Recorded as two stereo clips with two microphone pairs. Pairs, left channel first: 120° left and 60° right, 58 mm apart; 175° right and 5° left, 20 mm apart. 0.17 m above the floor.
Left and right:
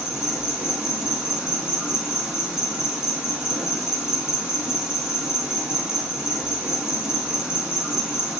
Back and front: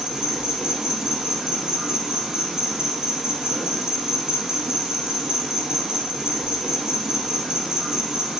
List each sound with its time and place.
0.0 s an insect: 15° left, 0.9 m